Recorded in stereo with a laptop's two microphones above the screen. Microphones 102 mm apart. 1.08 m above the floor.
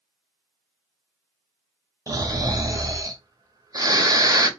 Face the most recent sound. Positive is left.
turn(degrees=-40)  # may be behind; listen again after turning